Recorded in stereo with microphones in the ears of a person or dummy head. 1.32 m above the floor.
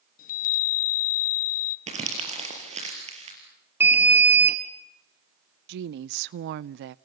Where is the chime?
50° left (ahead or behind), 1.0 m.